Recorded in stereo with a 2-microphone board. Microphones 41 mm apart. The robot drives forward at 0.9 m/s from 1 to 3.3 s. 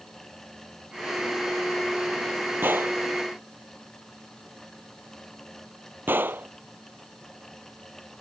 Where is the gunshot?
55° right (ahead or behind).